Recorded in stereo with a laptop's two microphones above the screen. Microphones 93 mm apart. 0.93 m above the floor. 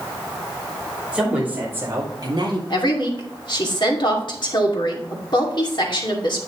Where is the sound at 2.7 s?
55° left (ahead or behind), 2.5 m.